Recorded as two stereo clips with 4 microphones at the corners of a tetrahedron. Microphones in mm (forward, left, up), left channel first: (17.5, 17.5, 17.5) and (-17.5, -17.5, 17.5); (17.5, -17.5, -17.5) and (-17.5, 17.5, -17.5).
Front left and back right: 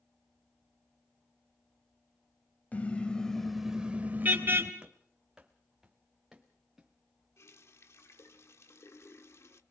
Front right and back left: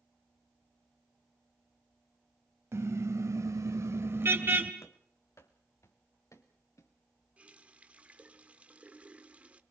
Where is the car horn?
105° left, 2.5 m; by 4.7 s 170° right, 2.5 m.